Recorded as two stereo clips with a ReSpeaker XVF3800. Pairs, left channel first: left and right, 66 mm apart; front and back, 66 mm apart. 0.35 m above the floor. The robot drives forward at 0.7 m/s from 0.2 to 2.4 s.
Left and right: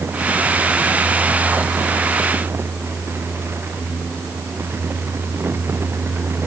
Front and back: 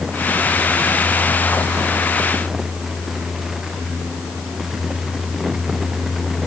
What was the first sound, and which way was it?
Only background noise.